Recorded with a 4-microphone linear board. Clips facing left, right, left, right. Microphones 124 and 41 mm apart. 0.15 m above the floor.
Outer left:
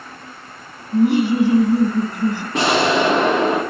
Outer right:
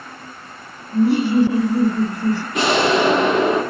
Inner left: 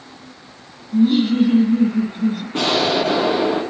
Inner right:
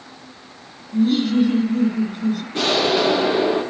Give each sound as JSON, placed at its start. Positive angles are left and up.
{"t": 0.9, "sound": "laughter", "side_deg": 20, "distance_m": 1.3}
{"t": 2.5, "sound": "an explosion", "side_deg": 35, "distance_m": 4.5}